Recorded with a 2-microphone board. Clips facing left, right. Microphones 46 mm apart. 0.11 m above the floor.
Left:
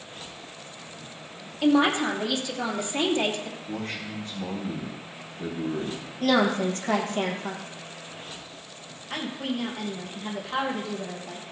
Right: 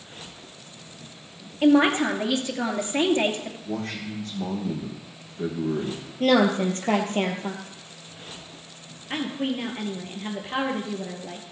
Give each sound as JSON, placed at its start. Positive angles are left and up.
{"t": 1.6, "sound": "a man speaking", "side_deg": -40, "distance_m": 2.5}
{"t": 3.7, "sound": "a man speaking", "side_deg": -65, "distance_m": 5.5}
{"t": 6.2, "sound": "a woman speaking", "side_deg": -40, "distance_m": 2.5}
{"t": 9.1, "sound": "a woman speaking", "side_deg": -30, "distance_m": 3.0}